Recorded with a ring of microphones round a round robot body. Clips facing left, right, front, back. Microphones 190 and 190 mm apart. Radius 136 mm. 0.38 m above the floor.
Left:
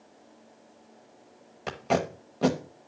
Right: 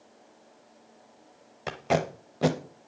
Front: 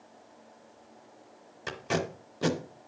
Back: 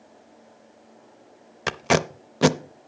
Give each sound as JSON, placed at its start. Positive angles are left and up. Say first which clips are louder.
{"t": 1.7, "sound": "tape being pulled", "louder": "even, back 8 dB", "azimuth_deg": -175, "distance_m": 0.6}